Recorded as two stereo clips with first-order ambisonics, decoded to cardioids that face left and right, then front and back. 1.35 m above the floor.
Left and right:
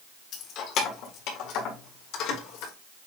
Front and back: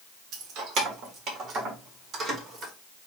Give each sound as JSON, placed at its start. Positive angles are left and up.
{"t": 0.3, "sound": "keys jangling", "azimuth_deg": 135, "distance_m": 1.3}